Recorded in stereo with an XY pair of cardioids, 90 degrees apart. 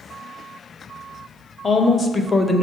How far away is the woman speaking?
About 1.2 m.